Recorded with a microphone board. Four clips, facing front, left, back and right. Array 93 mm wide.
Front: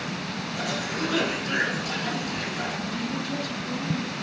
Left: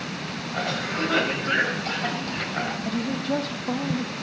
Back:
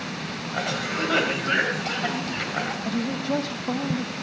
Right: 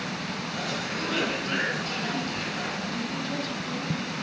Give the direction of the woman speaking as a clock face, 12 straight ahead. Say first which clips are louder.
Left 5 dB, back 4 dB; 7 o'clock.